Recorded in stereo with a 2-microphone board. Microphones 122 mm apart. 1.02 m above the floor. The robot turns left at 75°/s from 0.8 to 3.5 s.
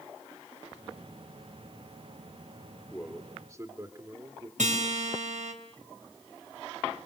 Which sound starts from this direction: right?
A guitar, at 4.6 s.